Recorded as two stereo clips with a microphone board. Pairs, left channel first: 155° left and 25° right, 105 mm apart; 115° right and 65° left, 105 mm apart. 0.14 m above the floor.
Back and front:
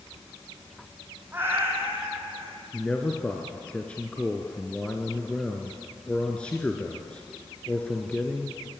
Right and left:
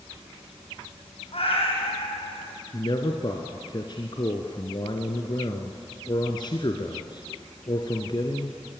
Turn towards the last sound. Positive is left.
turn(degrees=-125)